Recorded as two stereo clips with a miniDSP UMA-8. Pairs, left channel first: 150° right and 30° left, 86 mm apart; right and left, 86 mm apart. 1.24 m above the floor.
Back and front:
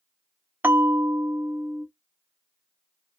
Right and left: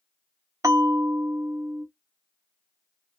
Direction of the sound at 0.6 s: 80° left.